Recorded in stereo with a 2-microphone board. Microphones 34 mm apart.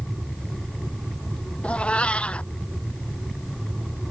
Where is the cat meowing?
35° left (ahead or behind).